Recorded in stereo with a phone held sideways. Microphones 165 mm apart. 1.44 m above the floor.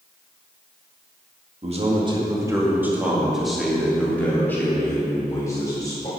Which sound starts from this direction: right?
A man speaking, at 1.6 s.